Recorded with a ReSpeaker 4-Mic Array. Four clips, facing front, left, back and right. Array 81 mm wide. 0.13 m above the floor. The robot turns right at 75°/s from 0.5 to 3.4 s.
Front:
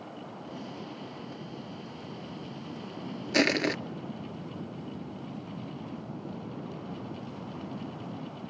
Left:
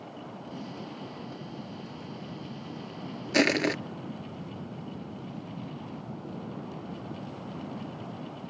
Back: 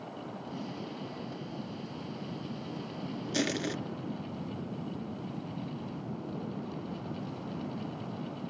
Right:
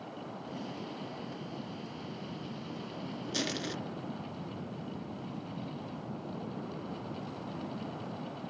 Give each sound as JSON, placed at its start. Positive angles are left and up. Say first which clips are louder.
{"t": 3.3, "sound": "crushing", "louder": "left 13 dB, front 7 dB", "azimuth_deg": 50, "distance_m": 0.5}